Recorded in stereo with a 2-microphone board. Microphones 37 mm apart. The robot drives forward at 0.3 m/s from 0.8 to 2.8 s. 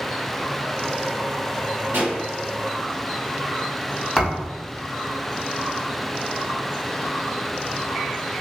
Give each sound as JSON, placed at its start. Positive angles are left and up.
{"t": 1.9, "sound": "a pop", "side_deg": -70, "distance_m": 1.4}
{"t": 4.2, "sound": "a thud", "side_deg": 0, "distance_m": 1.1}